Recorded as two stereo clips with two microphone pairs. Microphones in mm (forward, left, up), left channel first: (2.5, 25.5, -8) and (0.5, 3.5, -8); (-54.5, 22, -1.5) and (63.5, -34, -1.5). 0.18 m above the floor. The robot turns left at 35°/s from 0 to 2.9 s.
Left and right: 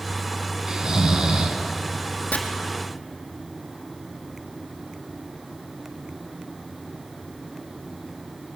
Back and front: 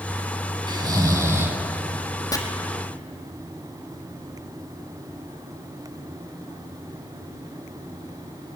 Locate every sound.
0.7 s snoring: 60° right, 1.4 m; by 1.6 s 90° right, 1.4 m
2.3 s chopping: 90° left, 1.6 m; by 2.4 s 85° left, 1.6 m